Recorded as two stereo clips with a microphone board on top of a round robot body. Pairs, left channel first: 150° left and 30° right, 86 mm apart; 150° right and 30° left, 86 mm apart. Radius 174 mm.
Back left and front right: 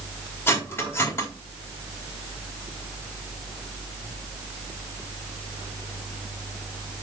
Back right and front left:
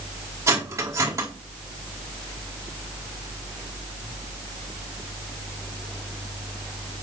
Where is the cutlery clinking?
85° left, 2 m.